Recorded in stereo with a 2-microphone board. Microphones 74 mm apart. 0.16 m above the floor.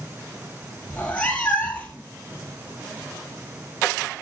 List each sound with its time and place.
0.9 s a cat meowing: 15° left (ahead or behind), 2 m